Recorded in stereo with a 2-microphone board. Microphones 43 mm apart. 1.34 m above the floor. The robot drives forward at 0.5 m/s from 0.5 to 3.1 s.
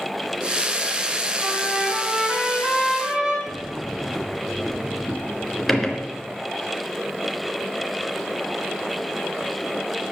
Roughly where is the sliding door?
Centre.